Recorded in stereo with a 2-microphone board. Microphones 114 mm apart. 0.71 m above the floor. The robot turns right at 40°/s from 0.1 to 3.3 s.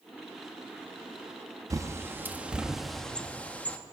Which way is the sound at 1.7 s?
30° right (ahead or behind).